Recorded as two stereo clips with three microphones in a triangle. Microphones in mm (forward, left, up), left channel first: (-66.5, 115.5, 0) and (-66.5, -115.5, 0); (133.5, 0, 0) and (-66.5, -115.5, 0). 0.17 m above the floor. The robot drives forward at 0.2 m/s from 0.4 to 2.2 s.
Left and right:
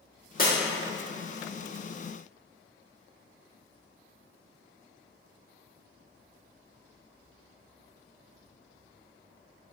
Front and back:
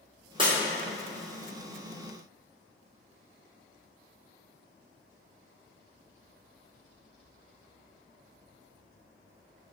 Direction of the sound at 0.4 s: 140° left.